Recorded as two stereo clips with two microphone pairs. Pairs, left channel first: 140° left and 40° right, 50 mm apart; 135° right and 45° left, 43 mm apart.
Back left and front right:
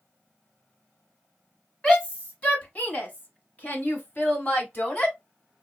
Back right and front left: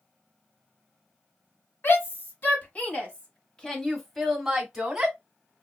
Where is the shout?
155° right, 1.5 m; by 5.2 s 105° left, 1.3 m.